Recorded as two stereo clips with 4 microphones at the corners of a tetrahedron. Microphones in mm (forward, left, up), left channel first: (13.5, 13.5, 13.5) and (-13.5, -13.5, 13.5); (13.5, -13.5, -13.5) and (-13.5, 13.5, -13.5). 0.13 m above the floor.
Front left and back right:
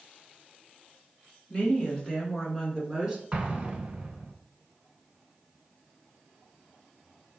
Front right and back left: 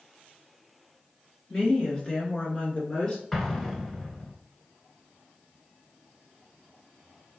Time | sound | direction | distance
1.5 | a woman speaking | 20° left | 1.5 m
3.3 | an explosion | 115° right | 0.8 m